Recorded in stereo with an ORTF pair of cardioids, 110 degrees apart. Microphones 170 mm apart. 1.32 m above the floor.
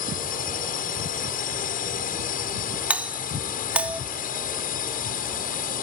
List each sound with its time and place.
0.0 s a drone: 60° left
2.9 s a doorbell: 10° right